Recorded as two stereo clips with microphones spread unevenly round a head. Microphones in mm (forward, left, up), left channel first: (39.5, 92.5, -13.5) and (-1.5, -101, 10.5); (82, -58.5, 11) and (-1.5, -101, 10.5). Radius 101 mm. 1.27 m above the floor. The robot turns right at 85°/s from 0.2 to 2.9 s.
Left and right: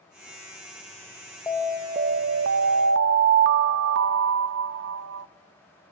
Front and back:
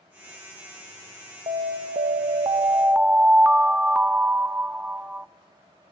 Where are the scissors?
I don't hear scissors.